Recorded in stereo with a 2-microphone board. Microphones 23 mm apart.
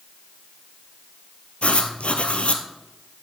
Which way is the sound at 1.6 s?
60° left (ahead or behind).